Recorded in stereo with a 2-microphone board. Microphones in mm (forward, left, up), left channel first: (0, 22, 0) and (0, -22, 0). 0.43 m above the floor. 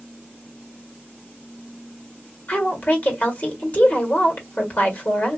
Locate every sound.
2.5 s a woman speaking: 35° left (ahead or behind), 1.8 m